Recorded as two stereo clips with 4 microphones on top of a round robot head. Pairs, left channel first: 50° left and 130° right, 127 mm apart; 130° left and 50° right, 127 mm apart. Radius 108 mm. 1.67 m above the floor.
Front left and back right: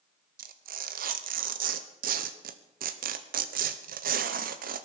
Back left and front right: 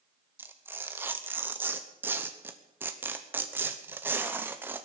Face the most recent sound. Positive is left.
turn(degrees=-125)